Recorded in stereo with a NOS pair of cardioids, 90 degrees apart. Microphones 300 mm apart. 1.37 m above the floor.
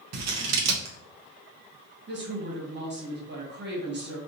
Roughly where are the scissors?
Ahead right.